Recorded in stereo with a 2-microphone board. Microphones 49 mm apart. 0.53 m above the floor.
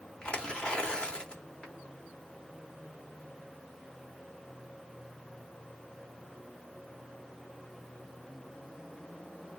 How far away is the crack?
No crack in this recording.